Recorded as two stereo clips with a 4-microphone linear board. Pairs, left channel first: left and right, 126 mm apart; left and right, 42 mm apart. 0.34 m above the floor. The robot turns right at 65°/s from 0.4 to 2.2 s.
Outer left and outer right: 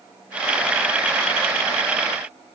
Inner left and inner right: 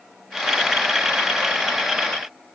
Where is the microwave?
No microwave in this recording.